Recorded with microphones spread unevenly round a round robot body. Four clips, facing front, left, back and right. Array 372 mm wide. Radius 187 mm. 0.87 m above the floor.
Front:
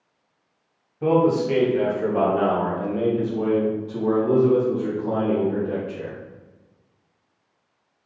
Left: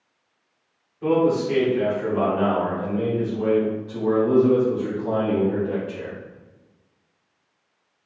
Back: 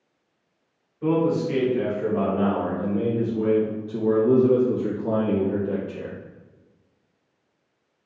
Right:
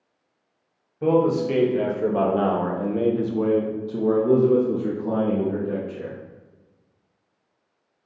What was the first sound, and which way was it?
A man speaking, 45° right.